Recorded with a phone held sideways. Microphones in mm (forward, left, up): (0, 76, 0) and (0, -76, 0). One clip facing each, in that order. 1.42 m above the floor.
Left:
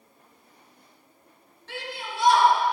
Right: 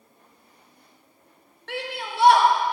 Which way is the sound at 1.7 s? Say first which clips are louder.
Right 4 dB; 65° right (ahead or behind).